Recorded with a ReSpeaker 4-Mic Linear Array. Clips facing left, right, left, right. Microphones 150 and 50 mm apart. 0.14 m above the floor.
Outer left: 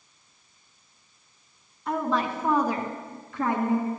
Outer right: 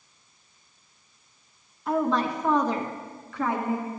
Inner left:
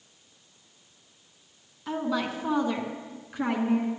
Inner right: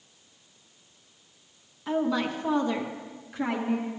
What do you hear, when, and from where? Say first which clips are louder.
1.9 s a woman speaking: outer right 2 dB, inner right 2 dB; 5° right (ahead or behind), 1.3 m; by 3.9 s 25° left (ahead or behind), 1.7 m